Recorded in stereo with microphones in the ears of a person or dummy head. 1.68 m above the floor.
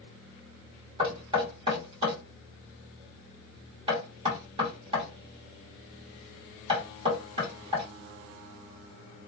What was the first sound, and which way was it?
Knocking, 25° right (ahead or behind).